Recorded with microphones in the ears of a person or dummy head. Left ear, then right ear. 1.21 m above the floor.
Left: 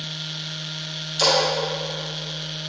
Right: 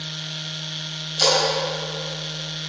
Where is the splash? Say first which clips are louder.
Even; 25° left (ahead or behind), 3.5 m.